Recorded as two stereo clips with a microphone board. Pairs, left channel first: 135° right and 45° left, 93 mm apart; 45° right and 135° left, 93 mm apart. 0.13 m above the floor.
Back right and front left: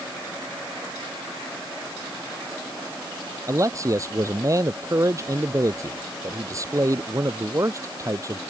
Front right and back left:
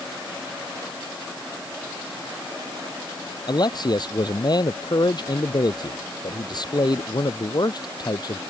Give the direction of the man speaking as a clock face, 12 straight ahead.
12 o'clock.